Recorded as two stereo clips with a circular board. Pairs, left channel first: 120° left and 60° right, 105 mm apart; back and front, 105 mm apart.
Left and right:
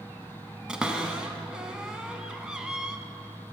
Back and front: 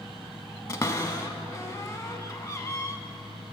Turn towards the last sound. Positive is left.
turn(degrees=-140)